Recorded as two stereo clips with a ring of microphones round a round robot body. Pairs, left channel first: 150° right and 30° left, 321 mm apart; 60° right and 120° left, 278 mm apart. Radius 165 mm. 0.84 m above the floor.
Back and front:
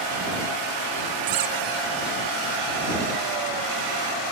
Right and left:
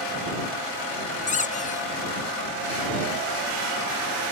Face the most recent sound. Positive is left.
turn(degrees=5)